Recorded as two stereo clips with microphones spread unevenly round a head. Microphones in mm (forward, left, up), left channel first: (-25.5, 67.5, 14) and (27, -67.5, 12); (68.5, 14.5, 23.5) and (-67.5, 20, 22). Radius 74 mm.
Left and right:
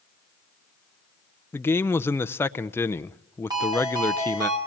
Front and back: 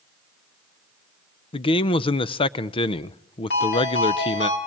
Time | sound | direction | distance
1.5 | a man speaking | 40° left | 0.6 m
3.5 | a ringtone | 5° right | 5.5 m